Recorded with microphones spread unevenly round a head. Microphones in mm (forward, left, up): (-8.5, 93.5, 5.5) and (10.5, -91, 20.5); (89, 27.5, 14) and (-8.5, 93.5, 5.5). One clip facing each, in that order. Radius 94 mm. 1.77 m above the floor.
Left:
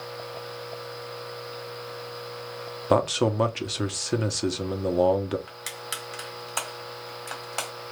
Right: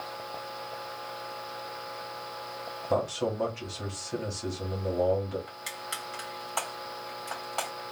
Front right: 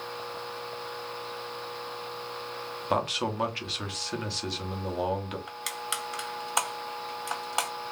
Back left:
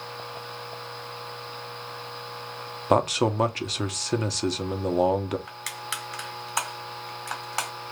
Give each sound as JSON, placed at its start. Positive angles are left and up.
{"t": 2.9, "sound": "a man speaking", "azimuth_deg": 105, "distance_m": 0.9}
{"t": 5.5, "sound": "crushing", "azimuth_deg": 20, "distance_m": 2.5}